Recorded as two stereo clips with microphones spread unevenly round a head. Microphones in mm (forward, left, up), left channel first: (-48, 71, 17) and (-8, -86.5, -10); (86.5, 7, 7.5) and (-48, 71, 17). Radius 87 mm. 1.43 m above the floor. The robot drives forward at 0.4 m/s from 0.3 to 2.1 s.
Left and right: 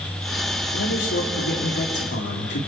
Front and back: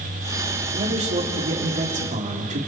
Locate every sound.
0.7 s a man speaking: 110° left, 4.5 m; by 2.6 s 115° left, 4.5 m